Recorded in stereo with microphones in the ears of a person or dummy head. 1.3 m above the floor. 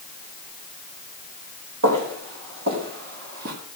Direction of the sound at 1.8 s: 65° right (ahead or behind).